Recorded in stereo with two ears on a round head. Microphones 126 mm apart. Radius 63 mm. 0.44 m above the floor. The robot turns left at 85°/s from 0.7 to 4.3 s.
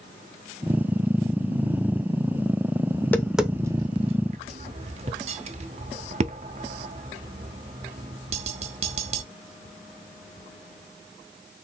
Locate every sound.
2.9 s tapping: 25° left (ahead or behind), 0.6 m; by 9.2 s 45° right (ahead or behind), 0.6 m